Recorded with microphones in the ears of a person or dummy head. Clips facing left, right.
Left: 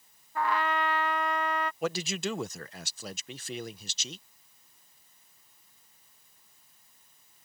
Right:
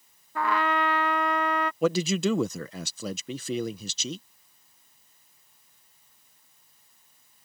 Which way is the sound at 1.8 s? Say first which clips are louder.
Right 12 dB; 75° right (ahead or behind).